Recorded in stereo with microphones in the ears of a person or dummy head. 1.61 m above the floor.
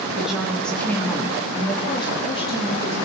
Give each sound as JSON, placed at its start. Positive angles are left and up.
{"t": 0.1, "sound": "a woman speaking", "side_deg": -5, "distance_m": 3.5}